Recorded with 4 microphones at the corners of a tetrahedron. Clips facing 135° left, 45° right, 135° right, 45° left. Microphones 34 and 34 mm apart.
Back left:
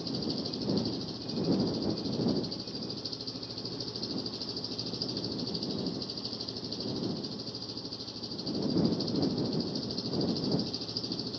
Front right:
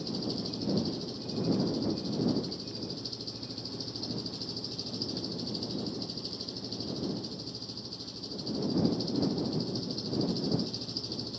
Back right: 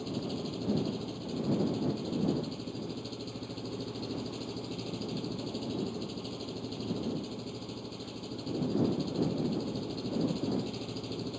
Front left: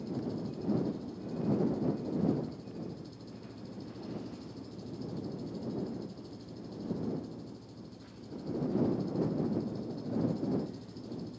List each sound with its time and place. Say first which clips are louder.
0.0 s an engine running: even, back right 1 dB; 150° right